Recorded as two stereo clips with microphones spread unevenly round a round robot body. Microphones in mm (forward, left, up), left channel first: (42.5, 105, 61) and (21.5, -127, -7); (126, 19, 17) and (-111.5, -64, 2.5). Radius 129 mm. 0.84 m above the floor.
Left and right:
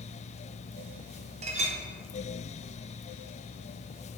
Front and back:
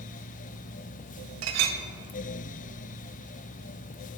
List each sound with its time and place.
1.4 s a clink: 145° right, 0.6 m